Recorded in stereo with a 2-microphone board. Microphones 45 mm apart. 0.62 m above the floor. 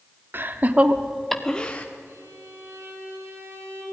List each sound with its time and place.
0.3 s laughter: 50° right (ahead or behind), 1.4 m; by 1.9 s 30° left (ahead or behind), 1.5 m
2.1 s a violin: 65° right (ahead or behind), 5 m